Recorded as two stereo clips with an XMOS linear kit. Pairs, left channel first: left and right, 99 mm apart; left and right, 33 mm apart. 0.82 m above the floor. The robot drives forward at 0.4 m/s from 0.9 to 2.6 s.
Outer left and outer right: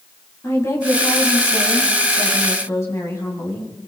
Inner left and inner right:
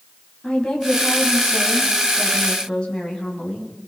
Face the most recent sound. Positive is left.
turn(degrees=25)  # may be behind; listen again after turning